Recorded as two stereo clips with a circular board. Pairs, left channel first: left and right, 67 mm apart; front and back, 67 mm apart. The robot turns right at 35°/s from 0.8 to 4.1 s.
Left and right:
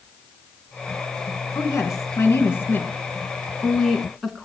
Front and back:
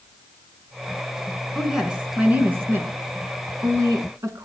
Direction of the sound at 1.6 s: 95° left.